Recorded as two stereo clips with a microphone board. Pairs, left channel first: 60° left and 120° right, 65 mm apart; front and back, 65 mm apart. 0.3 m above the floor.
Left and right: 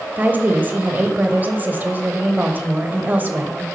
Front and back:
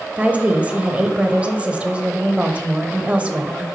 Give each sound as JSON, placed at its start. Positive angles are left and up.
{"t": 0.2, "sound": "a woman speaking", "azimuth_deg": -135, "distance_m": 1.0}